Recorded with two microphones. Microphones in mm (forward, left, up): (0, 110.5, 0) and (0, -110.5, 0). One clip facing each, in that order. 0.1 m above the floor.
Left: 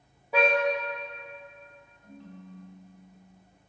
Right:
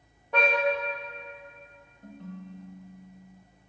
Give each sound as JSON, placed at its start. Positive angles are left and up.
{"t": 0.3, "sound": "a car horn", "side_deg": 5, "distance_m": 4.5}
{"t": 2.0, "sound": "a ringtone", "side_deg": -65, "distance_m": 1.9}